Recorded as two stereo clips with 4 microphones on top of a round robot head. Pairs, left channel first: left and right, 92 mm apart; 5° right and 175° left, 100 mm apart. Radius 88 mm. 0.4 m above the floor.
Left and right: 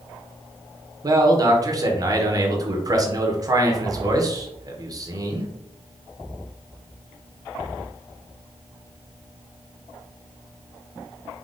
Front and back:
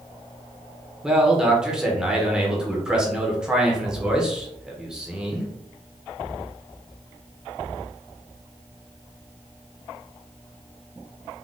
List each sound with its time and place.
1.0 s a man speaking: 105° right, 1.0 m